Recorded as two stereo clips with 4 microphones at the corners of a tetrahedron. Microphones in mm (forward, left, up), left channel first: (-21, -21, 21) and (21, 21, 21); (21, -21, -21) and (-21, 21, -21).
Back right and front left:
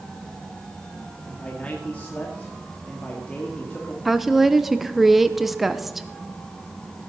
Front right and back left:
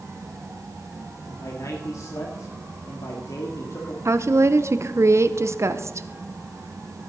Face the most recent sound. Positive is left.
turn(degrees=130)